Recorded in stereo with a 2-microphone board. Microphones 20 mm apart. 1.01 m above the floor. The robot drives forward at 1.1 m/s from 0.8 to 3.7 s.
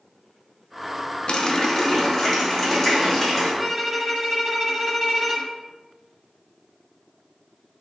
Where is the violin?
15° right (ahead or behind), 0.9 m.